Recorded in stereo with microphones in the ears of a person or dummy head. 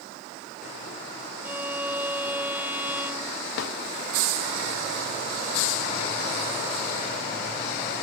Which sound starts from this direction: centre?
A violin, at 1.4 s.